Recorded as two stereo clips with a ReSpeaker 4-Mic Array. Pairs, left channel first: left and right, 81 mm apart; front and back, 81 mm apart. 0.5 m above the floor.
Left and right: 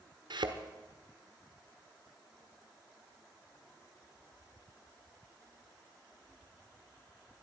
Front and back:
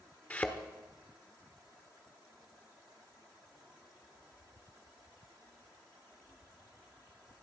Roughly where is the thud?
Right.